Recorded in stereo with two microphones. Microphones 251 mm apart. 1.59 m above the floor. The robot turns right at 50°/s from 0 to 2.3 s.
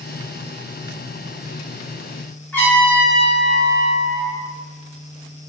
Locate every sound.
2.5 s a trumpet: 10° left (ahead or behind), 1.5 m